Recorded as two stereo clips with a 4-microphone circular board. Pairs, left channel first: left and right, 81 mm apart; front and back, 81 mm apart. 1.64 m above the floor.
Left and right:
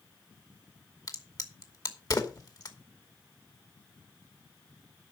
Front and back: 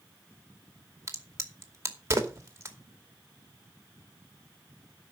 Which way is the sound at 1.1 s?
125° left.